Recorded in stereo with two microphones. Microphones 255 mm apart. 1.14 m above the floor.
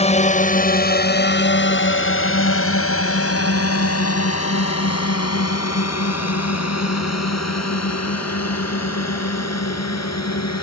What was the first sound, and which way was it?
A drone, 25° left (ahead or behind).